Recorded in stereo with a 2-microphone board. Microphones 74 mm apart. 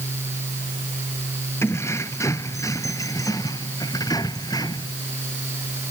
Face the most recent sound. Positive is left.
turn(degrees=70)  # may be behind; listen again after turning